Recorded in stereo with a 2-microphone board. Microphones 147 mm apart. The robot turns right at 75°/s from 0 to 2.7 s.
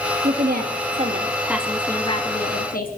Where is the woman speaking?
105° right, 1.6 m; by 2.9 s 80° left, 1.6 m.